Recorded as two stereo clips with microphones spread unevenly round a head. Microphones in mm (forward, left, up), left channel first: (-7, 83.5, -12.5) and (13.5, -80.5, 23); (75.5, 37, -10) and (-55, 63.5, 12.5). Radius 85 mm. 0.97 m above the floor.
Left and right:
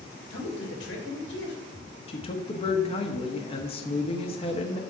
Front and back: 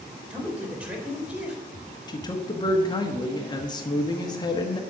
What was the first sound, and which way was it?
A man speaking, 90° left.